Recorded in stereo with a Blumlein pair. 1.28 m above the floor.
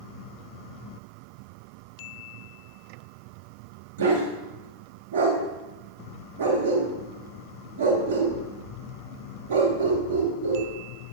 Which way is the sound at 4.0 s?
65° right.